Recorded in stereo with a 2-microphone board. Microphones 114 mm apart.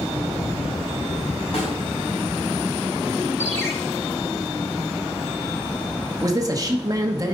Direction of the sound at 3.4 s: 20° left (ahead or behind).